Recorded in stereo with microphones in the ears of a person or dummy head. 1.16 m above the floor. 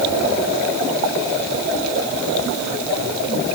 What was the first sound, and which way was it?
Only background noise.